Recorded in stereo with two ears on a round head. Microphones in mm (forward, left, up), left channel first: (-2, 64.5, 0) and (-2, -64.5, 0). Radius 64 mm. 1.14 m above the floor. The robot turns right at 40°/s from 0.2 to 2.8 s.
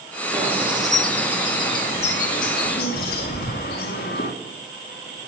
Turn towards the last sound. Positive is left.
turn(degrees=75)  # may be behind; listen again after turning